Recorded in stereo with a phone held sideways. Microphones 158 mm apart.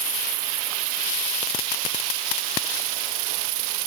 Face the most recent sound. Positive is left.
No sound to turn to.